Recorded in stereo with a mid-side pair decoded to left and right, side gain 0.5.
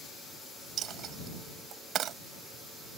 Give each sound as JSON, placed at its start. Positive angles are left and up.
{"t": 0.8, "sound": "a dropped coin", "azimuth_deg": -65}